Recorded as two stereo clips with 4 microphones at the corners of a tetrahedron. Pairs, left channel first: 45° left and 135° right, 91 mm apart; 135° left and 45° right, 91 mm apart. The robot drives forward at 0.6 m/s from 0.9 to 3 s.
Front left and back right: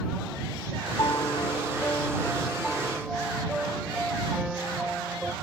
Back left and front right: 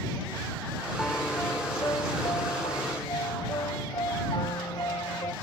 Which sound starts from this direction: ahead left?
A piano, at 1.0 s.